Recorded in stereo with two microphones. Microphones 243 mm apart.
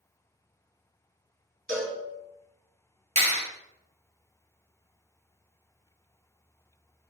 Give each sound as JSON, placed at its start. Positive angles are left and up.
{"t": 1.7, "sound": "a cowbell", "side_deg": -35, "distance_m": 2.0}
{"t": 3.2, "sound": "a clap", "side_deg": -30, "distance_m": 1.2}